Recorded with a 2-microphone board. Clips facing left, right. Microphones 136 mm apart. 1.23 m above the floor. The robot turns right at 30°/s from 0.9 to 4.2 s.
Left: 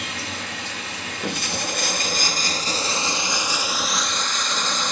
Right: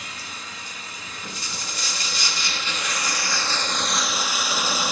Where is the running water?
85° left, 1.1 m; by 4.9 s 175° right, 1.1 m.